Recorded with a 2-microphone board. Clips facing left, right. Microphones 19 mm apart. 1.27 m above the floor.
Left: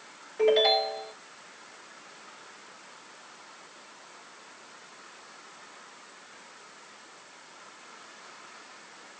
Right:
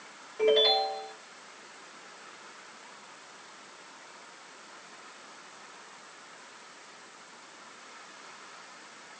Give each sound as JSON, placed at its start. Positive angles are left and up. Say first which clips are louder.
{"t": 0.4, "sound": "a ringtone", "louder": "left 1 dB", "side_deg": 10, "distance_m": 2.5}